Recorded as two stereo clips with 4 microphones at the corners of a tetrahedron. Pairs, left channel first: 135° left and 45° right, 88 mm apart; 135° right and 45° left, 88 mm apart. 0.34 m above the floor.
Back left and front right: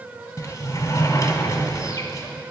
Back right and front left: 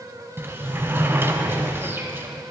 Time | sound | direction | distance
0.4 | a sliding door | 100° left | 1.2 m